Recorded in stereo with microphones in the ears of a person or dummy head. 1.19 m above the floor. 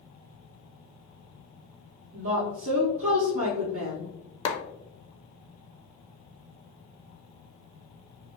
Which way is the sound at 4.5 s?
30° left (ahead or behind).